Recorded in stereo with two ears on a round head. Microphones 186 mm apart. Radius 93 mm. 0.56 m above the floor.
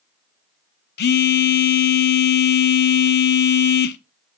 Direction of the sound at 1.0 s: 50° left (ahead or behind).